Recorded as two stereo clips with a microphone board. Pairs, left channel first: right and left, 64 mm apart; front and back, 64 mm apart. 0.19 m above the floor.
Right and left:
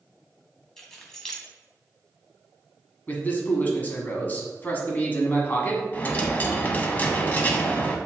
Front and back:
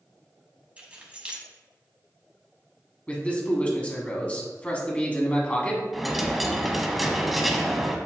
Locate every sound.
0.8 s keys jangling: 155° right, 1.1 m
3.1 s a man speaking: 55° right, 1.2 m
5.9 s a dropped coin: 95° right, 0.6 m